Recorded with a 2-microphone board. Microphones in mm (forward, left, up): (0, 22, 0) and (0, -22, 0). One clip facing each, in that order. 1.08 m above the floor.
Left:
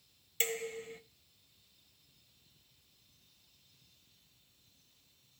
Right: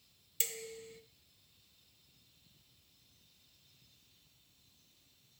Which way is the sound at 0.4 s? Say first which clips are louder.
Left 8 dB; 40° left (ahead or behind).